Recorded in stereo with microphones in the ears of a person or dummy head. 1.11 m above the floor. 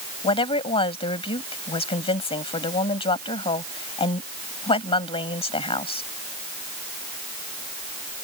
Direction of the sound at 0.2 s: 40° left (ahead or behind).